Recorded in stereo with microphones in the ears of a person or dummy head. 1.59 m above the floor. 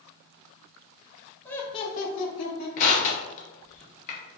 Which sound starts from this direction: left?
Crushing, at 2.8 s.